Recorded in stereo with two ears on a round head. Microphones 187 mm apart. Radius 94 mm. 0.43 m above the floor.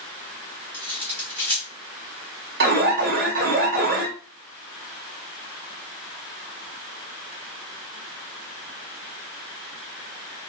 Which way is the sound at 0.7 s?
10° left (ahead or behind).